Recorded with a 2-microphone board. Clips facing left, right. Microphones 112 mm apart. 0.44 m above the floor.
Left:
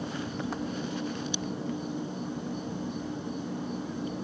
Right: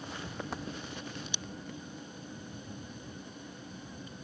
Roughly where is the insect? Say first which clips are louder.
Left 7 dB; left.